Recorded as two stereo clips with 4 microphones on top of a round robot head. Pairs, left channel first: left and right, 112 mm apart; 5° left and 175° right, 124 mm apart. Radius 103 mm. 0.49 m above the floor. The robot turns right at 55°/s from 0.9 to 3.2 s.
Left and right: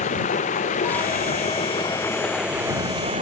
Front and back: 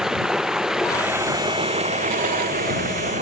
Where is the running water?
100° left; by 3.2 s 135° right.